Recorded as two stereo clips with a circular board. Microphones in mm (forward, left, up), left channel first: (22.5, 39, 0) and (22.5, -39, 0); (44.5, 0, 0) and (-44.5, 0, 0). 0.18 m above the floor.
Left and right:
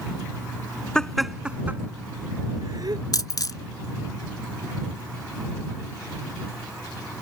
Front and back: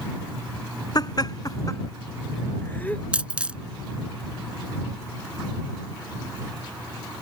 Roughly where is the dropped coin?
Left.